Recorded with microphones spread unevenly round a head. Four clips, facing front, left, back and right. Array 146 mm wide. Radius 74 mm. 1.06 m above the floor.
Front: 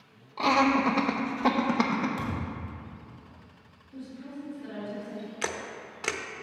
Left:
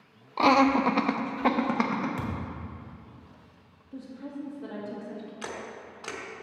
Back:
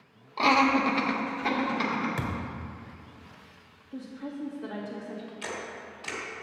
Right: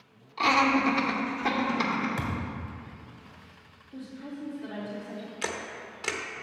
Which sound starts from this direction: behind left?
A woman speaking, at 3.9 s.